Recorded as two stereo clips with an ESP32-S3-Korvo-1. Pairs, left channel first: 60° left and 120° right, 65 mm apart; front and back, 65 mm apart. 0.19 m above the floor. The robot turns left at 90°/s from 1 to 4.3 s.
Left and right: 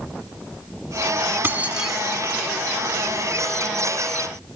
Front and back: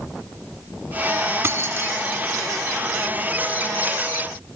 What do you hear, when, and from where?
1.4 s keys jangling: 160° right, 0.9 m; by 2.0 s 150° left, 0.9 m